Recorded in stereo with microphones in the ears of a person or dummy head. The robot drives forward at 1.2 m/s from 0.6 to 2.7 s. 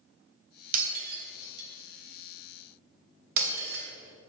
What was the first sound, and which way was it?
Breaking glass, 50° right (ahead or behind).